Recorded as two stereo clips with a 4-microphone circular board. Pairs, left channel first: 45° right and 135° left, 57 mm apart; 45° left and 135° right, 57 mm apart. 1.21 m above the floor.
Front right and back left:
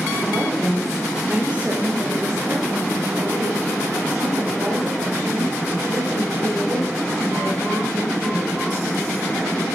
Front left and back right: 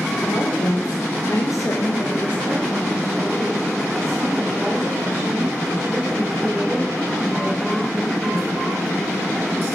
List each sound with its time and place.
0.2 s a woman speaking: 25° left, 1.8 m; by 8.7 s 145° left, 7.5 m